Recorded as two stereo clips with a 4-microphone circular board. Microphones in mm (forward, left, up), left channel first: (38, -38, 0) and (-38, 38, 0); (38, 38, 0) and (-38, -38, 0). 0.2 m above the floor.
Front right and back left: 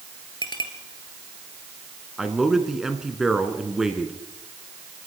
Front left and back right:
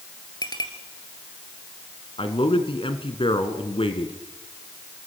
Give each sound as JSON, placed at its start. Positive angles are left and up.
{"t": 0.4, "sound": "a clink", "azimuth_deg": 0, "distance_m": 2.5}
{"t": 2.2, "sound": "a man speaking", "azimuth_deg": 50, "distance_m": 2.5}